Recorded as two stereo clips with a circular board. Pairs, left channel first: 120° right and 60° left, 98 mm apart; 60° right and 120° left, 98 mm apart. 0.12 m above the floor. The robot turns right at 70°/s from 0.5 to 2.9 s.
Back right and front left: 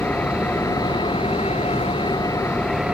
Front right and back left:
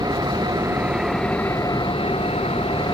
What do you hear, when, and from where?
0.0 s an engine running: 165° left; by 2.9 s 25° right